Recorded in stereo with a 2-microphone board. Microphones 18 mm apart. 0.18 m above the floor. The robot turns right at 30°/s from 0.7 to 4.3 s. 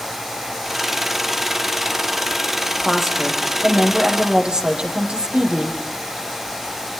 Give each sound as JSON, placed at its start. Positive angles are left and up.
{"t": 2.9, "sound": "a woman speaking", "azimuth_deg": -155, "distance_m": 6.5}